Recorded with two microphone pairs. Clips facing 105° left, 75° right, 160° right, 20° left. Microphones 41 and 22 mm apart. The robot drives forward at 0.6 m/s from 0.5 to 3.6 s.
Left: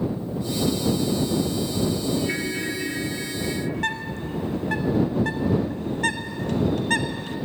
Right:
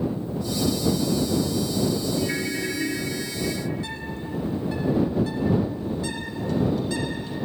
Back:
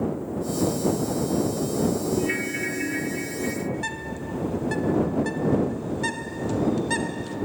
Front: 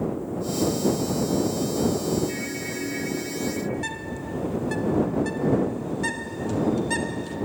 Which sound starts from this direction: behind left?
A bird, at 3.7 s.